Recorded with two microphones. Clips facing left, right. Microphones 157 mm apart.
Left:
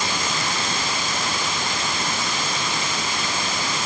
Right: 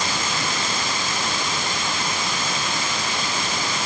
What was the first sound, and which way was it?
Only background noise.